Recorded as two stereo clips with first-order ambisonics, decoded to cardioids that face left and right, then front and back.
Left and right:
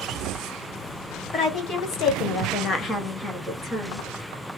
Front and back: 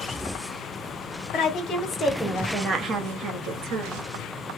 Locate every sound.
1.3 s a woman speaking: 45° left, 1.1 m; by 4.1 s 170° right, 1.2 m